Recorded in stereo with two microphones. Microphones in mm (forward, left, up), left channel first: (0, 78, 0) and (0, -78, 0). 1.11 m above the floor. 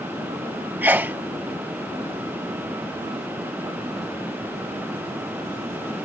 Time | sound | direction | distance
0.8 | a sneeze | 10° right (ahead or behind) | ?